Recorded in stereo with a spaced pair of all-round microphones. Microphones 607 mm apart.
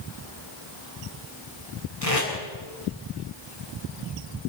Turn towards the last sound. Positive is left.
turn(degrees=60)  # may be behind; listen again after turning